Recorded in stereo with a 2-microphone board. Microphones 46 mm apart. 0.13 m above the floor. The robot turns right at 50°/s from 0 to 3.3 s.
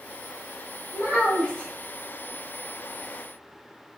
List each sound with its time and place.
0.9 s a child speaking: 65° left, 1.1 m; by 1.7 s 105° left, 1.1 m